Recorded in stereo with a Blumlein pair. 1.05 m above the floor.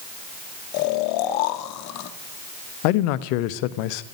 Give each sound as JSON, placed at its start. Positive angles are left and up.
{"t": 0.7, "sound": "snoring", "azimuth_deg": 40, "distance_m": 1.0}
{"t": 2.8, "sound": "a man speaking", "azimuth_deg": 45, "distance_m": 0.8}